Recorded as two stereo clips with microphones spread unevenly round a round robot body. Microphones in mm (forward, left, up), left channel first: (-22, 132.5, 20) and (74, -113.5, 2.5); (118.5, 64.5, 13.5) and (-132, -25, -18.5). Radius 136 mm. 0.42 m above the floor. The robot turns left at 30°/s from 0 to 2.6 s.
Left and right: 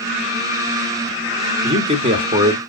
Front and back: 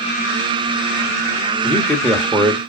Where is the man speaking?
75° right, 1.1 m; by 2.6 s 100° right, 1.1 m.